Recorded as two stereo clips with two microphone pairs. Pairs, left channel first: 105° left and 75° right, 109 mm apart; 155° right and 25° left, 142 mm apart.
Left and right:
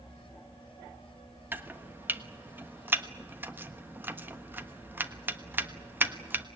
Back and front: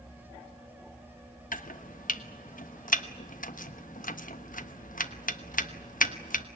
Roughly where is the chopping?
Behind right.